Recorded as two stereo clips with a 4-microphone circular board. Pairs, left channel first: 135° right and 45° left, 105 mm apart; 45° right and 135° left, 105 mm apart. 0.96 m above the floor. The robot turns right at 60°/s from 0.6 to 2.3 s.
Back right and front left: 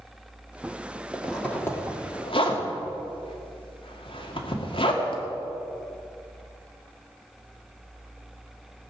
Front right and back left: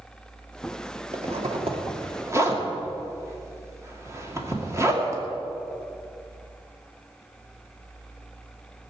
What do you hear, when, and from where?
1.1 s a zipper: 125° left, 2 m; by 5.2 s 165° right, 2 m